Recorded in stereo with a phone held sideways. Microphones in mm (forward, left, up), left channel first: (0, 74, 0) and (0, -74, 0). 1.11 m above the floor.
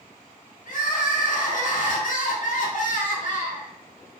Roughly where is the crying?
Left.